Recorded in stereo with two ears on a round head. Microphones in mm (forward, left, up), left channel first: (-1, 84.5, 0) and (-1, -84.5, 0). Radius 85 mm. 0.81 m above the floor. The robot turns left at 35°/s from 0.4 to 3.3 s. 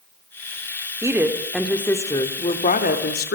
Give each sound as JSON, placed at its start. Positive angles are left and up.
{"t": 1.0, "sound": "a woman speaking", "azimuth_deg": -160, "distance_m": 2.5}